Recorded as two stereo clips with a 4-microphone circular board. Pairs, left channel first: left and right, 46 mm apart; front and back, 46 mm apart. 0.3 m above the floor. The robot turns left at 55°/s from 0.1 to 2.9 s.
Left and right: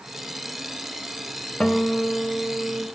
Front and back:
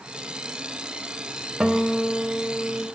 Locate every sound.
1.6 s a guitar: 120° left, 0.7 m; by 2.9 s 50° left, 0.7 m